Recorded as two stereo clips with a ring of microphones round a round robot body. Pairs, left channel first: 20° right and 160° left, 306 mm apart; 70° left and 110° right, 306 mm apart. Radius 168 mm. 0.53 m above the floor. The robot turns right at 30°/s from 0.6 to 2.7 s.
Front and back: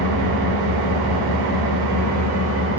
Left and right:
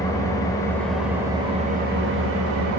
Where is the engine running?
145° left, 0.7 m; by 2.8 s 150° right, 0.7 m.